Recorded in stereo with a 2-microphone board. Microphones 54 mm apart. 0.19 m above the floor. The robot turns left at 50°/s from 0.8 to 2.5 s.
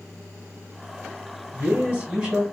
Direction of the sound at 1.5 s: 110° right.